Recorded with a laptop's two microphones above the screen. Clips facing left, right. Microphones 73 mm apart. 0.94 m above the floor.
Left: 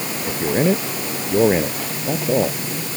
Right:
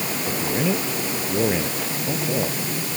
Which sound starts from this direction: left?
A man speaking, at 0.3 s.